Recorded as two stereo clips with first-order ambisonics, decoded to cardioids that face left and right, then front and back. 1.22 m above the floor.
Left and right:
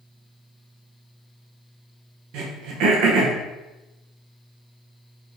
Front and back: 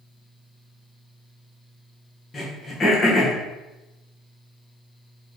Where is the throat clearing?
70° right, 0.9 m.